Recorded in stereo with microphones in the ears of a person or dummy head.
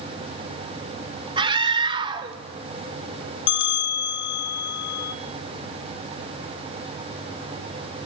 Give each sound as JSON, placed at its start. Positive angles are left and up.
{"t": 1.4, "sound": "a scream", "side_deg": -35, "distance_m": 2.5}
{"t": 3.5, "sound": "a bell", "side_deg": 80, "distance_m": 1.7}